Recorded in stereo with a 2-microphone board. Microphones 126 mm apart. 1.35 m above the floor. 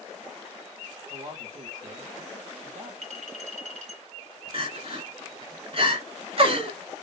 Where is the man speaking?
70° right (ahead or behind), 2 m.